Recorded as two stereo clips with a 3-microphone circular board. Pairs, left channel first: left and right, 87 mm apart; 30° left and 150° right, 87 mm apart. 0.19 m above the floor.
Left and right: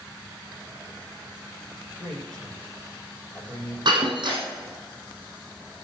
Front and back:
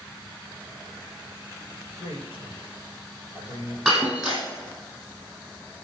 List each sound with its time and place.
2.0 s a man speaking: 10° left, 4.5 m
3.9 s breaking glass: 60° right, 4 m